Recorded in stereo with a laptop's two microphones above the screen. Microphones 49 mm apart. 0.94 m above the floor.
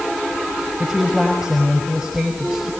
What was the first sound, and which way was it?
A woman speaking, 15° right (ahead or behind).